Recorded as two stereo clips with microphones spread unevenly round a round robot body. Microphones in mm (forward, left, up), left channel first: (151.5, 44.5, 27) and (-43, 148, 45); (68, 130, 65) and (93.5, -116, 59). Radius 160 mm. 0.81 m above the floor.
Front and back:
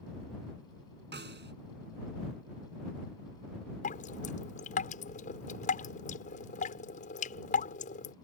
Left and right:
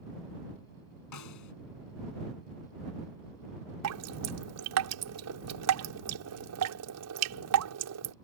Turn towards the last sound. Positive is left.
turn(degrees=-90)